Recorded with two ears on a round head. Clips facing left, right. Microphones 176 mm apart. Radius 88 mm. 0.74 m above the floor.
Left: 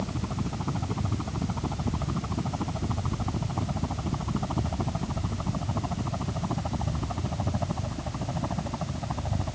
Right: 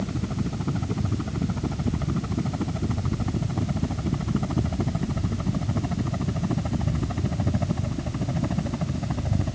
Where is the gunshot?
I don't hear a gunshot.